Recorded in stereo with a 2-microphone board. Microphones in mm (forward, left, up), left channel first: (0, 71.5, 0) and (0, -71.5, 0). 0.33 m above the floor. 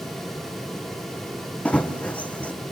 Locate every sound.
1.6 s running footsteps: 10° left (ahead or behind), 1.3 m